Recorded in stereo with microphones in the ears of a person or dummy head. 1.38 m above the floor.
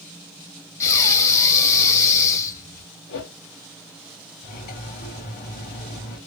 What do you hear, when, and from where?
0.8 s breathing: 15° left (ahead or behind), 1.1 m
3.1 s a whoosh: 55° left (ahead or behind), 2 m
4.4 s cutlery clinking: 45° left (ahead or behind), 1.9 m